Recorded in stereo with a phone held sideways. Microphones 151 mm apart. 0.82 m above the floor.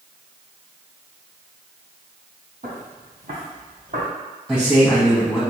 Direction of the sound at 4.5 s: 5° left (ahead or behind).